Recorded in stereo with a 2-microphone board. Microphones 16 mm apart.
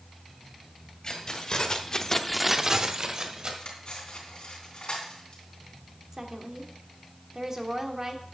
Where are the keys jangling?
45° left (ahead or behind), 1.9 m; by 3.5 s 45° right (ahead or behind), 1.9 m.